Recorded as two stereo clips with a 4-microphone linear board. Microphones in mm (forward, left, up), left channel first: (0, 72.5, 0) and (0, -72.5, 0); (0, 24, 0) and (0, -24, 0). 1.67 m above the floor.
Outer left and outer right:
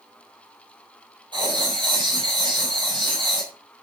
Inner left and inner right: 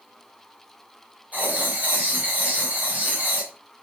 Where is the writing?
35° right (ahead or behind), 5 m.